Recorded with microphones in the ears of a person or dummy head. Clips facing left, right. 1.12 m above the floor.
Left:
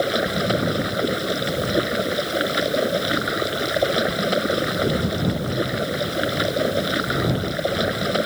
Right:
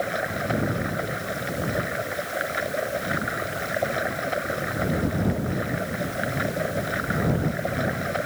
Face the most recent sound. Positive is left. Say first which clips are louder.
# left 6 dB
turn(degrees=50)  # may be behind; listen again after turning